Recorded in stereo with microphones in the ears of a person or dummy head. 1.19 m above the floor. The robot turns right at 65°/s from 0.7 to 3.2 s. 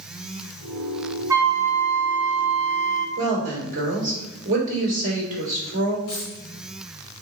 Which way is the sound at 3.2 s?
50° right (ahead or behind).